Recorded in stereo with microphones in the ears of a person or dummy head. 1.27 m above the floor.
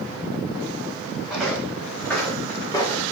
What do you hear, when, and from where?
1.3 s footsteps: centre (ahead or behind), 5 m; by 3.0 s 20° left (ahead or behind), 4.5 m